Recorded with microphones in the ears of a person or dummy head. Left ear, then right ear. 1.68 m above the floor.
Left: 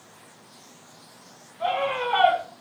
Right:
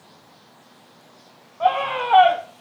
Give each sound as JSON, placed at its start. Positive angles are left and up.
{"t": 1.6, "sound": "a scream", "side_deg": -35, "distance_m": 1.5}